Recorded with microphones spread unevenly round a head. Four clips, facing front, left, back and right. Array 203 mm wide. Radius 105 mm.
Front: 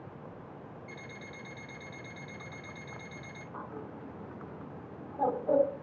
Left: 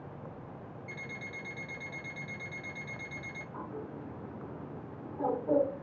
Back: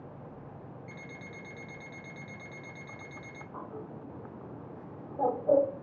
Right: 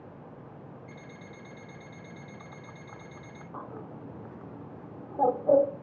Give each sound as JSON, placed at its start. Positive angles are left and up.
{"t": 0.9, "sound": "an alarm clock", "azimuth_deg": 145, "distance_m": 1.7}
{"t": 3.5, "sound": "a bird", "azimuth_deg": -90, "distance_m": 0.9}